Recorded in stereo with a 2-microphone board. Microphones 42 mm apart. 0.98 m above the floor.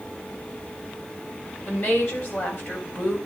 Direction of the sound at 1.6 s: 50° left (ahead or behind).